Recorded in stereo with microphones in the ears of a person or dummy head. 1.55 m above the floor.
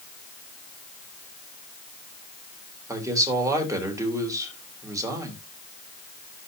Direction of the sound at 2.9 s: 10° right (ahead or behind).